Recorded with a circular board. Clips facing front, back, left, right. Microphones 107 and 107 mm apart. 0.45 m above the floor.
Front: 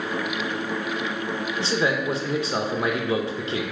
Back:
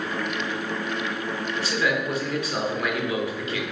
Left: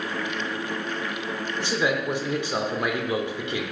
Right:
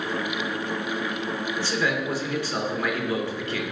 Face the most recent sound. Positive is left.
turn(degrees=35)